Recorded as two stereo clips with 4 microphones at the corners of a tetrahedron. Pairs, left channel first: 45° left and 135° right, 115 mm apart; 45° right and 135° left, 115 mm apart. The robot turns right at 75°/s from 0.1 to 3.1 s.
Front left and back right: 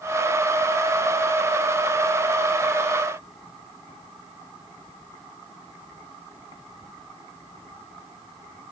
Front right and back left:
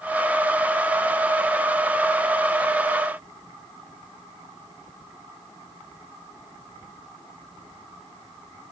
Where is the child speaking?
I don't hear a child speaking.